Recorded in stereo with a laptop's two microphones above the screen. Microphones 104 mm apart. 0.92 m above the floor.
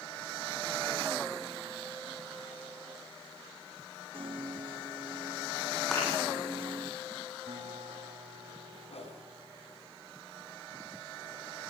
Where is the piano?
55° right (ahead or behind), 0.7 m.